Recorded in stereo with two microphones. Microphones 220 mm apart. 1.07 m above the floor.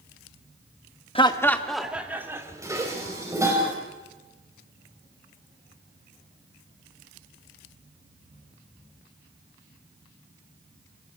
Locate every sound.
1.1 s laughter: 25° left (ahead or behind), 1.1 m; by 3.3 s 20° right (ahead or behind), 4 m
2.6 s dishes clattering: 15° right (ahead or behind), 4 m